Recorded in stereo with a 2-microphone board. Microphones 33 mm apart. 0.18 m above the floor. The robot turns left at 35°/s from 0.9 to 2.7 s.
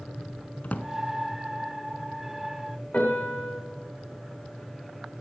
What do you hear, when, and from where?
0.6 s a drawer: 50° left (ahead or behind), 0.8 m
2.9 s a piano: 45° left (ahead or behind), 5.5 m